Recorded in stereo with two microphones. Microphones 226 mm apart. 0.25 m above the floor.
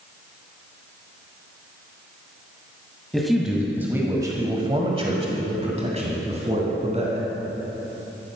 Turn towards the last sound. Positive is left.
turn(degrees=-30)  # may be behind; listen again after turning